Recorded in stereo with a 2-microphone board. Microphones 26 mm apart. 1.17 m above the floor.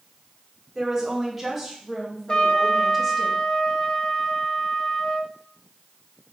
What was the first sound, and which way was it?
A woman speaking, 5° right (ahead or behind).